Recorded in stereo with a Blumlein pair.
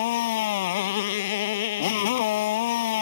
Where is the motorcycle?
55° left.